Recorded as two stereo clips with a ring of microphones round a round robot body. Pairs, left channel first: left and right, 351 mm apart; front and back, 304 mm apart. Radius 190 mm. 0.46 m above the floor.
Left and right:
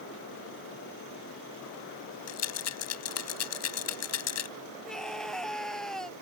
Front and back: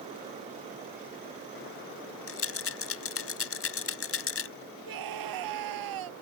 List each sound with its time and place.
2.3 s a rattle: 45° left
4.9 s a scream: straight behind